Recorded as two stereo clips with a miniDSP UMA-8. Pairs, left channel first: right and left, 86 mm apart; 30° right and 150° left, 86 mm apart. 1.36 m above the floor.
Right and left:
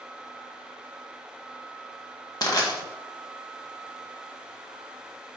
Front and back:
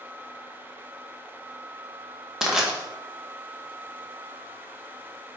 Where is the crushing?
130° right, 1.5 m.